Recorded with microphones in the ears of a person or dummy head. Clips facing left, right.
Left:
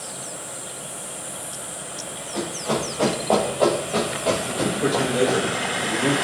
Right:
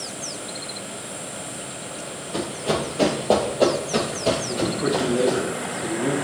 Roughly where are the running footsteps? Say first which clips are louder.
Right 1 dB; right.